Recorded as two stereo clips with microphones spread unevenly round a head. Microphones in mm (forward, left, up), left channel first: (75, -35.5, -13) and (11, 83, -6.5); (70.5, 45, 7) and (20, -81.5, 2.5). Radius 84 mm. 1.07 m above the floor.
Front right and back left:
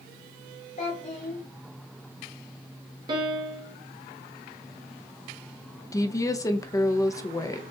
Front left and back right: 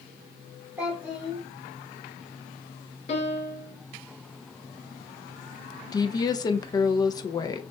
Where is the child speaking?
40° right, 2.5 m.